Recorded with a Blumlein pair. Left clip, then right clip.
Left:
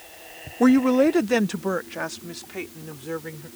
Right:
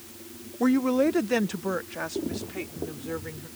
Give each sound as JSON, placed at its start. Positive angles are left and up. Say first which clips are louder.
{"t": 0.6, "sound": "a woman speaking", "louder": "left 5 dB", "azimuth_deg": 70}